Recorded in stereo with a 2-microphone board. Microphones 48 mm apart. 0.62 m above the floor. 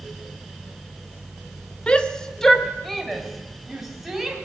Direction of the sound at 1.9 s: 20° left (ahead or behind).